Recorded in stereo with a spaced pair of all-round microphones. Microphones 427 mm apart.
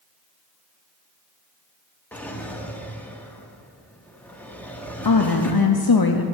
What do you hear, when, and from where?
2.1 s a drawer: 5° left (ahead or behind), 1.0 m
5.0 s a woman speaking: 55° left (ahead or behind), 0.6 m